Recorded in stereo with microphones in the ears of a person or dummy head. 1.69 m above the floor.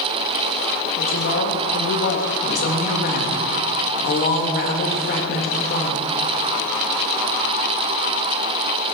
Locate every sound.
1.0 s a woman speaking: 65° left (ahead or behind), 2 m
2.4 s a woman speaking: 50° left (ahead or behind), 3 m